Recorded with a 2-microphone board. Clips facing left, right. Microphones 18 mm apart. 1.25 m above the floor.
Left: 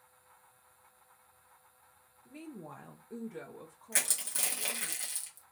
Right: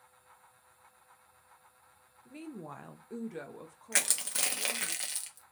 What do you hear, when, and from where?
2.2 s a woman speaking: 15° right (ahead or behind), 0.6 m; by 4.9 s 25° right (ahead or behind), 1.2 m
3.9 s crushing: 45° right (ahead or behind), 0.6 m